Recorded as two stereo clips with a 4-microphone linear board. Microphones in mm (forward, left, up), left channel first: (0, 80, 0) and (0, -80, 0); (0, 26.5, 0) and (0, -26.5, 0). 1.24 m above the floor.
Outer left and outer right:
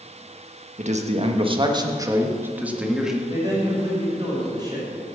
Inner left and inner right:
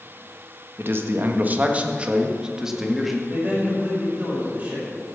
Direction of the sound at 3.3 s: 30° right (ahead or behind).